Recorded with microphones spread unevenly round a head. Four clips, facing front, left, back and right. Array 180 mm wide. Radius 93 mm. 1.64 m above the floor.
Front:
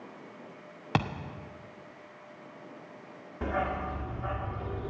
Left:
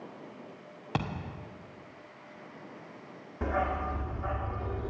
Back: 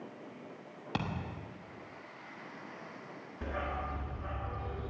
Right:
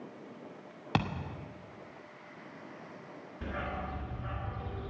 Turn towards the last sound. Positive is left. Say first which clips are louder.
# left 8 dB, front 7 dB
turn(degrees=60)